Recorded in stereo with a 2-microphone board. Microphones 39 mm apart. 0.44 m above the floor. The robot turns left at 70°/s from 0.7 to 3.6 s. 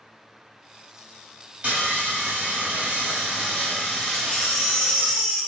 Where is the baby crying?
5° left (ahead or behind), 1.0 m.